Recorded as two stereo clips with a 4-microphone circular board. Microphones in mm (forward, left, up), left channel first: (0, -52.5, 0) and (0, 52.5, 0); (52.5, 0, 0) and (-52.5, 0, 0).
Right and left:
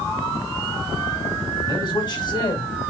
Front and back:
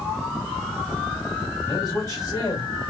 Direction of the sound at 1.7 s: 45° right.